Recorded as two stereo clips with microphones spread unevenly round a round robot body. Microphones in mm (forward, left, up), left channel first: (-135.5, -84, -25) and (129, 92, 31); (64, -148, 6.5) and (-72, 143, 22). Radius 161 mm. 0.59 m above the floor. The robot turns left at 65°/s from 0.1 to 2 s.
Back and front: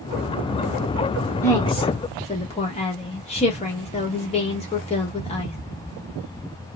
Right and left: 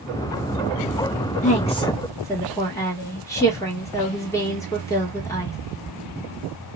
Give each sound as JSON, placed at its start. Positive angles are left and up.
{"t": 1.4, "sound": "a woman speaking", "azimuth_deg": -95, "distance_m": 1.1}